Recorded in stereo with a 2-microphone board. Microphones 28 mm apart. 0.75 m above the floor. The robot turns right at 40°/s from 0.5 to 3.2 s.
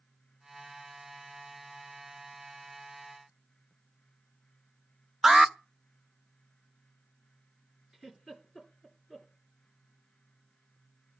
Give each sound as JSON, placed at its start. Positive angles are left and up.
{"t": 5.2, "sound": "an alarm", "side_deg": -20, "distance_m": 0.8}
{"t": 7.9, "sound": "a giggle", "side_deg": -15, "distance_m": 3.0}